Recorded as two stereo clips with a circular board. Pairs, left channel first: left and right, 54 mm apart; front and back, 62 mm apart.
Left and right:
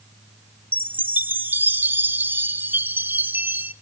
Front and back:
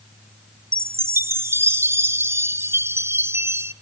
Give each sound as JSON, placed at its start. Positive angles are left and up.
{"t": 0.7, "sound": "a chime", "azimuth_deg": -135, "distance_m": 0.6}